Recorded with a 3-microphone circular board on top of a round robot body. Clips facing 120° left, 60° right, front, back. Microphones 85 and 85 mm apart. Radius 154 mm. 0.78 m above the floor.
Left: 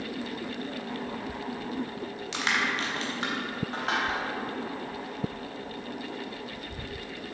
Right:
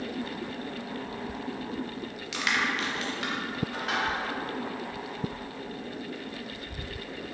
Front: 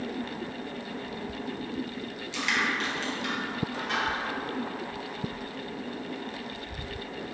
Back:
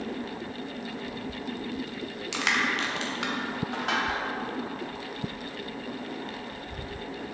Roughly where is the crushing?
Behind.